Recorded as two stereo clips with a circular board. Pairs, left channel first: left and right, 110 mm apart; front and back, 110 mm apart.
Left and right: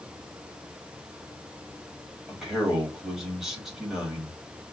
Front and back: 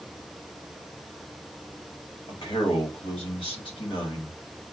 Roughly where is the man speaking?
Ahead.